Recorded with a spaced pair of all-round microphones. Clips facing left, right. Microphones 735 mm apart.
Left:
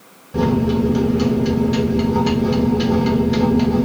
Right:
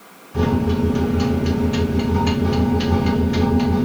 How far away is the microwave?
About 1.0 m.